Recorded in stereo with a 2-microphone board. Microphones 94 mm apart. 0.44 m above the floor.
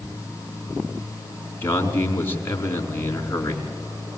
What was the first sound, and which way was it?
A man speaking, 25° left (ahead or behind).